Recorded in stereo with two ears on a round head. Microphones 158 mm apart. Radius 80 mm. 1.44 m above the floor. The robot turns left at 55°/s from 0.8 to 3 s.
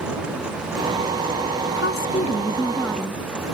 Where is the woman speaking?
65° left; by 3.2 s 5° right.